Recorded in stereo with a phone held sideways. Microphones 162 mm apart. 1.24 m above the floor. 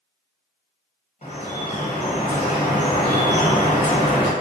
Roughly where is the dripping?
Left.